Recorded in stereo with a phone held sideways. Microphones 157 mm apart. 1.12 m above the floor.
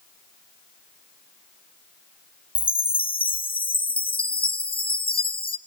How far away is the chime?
About 0.6 m.